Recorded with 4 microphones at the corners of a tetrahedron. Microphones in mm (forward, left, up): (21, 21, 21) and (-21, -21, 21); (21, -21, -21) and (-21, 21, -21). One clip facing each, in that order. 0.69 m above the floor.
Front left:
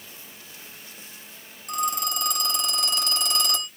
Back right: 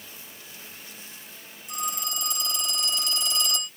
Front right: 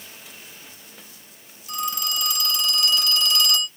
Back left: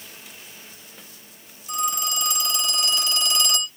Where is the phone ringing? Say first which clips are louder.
Front left 6 dB, back left 2 dB; 70° left, 1.4 m.